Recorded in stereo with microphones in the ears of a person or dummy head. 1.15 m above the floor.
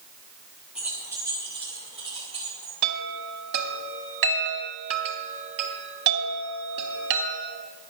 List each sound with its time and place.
0.8 s keys jangling: 5° right (ahead or behind), 1.3 m; by 2.7 s 35° right (ahead or behind), 3.5 m
2.8 s a chime: 65° right (ahead or behind), 1.9 m